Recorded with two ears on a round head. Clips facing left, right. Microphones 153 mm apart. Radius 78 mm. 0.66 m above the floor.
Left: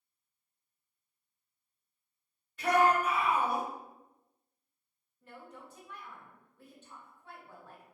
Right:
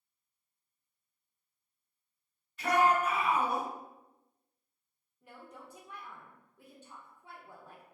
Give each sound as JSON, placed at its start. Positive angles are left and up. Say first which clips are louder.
{"t": 2.6, "sound": "a shout", "louder": "left 1 dB", "side_deg": 45, "distance_m": 1.8}
{"t": 5.2, "sound": "a woman speaking", "louder": "left 1 dB", "side_deg": -10, "distance_m": 0.6}